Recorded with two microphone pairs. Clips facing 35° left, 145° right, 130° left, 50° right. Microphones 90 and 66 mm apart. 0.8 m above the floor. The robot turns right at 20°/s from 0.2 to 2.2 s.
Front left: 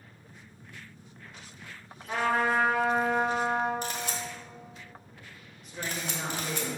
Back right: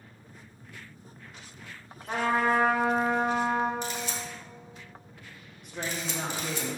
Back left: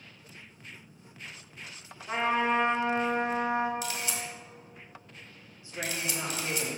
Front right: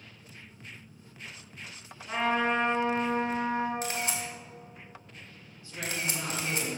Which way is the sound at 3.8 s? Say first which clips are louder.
Even, front right 2 dB; 5° right.